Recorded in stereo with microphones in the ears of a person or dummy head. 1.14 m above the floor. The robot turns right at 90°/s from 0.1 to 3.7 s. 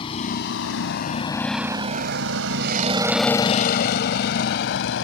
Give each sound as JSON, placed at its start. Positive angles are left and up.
{"t": 0.0, "sound": "a vehicle", "side_deg": 30}